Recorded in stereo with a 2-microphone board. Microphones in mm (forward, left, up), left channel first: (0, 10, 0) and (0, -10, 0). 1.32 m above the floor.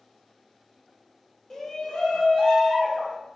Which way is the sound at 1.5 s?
20° left (ahead or behind).